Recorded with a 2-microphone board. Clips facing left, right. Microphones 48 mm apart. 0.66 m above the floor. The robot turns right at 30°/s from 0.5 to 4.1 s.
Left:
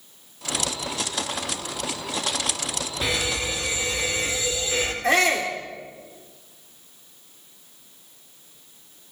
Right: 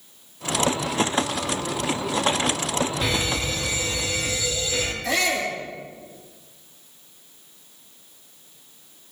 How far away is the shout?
About 1.8 m.